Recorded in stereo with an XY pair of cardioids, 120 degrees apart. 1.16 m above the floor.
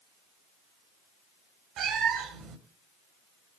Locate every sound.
1.8 s a cat meowing: 65° right, 2 m